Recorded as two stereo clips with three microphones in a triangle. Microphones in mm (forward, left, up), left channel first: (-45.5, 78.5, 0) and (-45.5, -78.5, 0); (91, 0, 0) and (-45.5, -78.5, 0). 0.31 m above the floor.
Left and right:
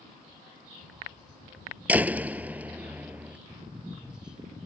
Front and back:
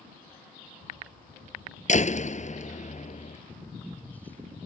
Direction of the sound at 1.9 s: 10° right.